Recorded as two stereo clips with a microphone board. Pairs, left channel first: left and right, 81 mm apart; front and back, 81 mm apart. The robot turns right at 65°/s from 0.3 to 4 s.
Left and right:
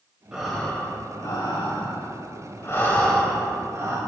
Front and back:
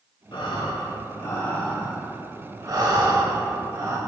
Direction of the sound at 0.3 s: 10° right.